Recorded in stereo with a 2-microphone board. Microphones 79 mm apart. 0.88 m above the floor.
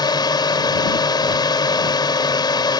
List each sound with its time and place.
0.0 s a drone: 65° left (ahead or behind)